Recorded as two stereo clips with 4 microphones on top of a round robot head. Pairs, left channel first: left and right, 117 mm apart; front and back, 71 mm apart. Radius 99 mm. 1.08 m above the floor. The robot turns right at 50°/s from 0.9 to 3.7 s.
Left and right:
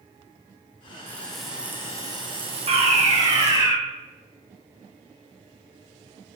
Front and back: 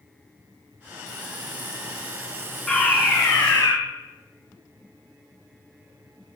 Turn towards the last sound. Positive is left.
turn(degrees=-30)